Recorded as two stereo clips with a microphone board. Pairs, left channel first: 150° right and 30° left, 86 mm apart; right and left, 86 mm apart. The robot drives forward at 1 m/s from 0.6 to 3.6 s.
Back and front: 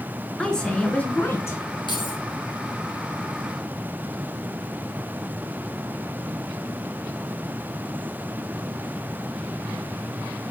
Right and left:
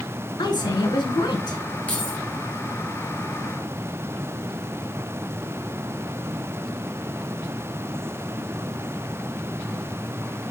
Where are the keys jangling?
165° right, 3 m.